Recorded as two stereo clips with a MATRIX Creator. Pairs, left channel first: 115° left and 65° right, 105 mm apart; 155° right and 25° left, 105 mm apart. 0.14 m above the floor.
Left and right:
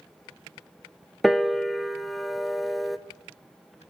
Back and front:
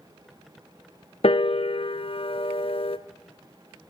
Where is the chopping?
I don't hear chopping.